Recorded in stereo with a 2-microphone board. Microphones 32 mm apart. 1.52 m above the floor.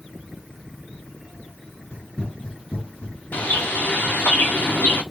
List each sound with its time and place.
1.9 s running footsteps: 45° left (ahead or behind), 2.5 m
3.3 s a bird: 75° left (ahead or behind), 1.5 m